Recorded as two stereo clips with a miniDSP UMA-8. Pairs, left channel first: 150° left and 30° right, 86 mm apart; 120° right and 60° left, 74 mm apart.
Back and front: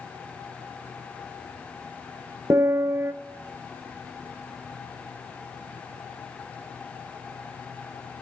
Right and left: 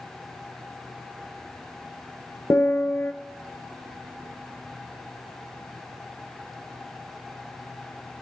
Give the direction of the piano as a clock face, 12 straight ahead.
3 o'clock.